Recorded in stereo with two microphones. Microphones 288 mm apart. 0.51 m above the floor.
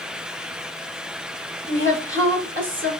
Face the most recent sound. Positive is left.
turn(degrees=-40)  # may be behind; listen again after turning